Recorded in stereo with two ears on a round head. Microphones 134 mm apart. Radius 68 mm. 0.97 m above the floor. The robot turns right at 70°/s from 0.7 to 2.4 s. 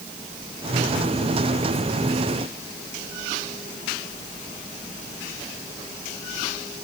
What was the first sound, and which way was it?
Only background noise.